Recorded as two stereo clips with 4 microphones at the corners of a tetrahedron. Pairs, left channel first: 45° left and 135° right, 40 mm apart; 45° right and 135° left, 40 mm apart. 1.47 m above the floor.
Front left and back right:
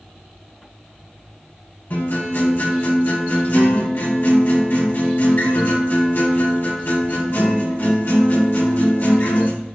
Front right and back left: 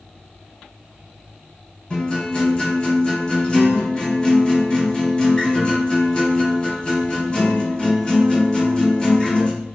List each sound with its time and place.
1.9 s a guitar: 20° left, 4 m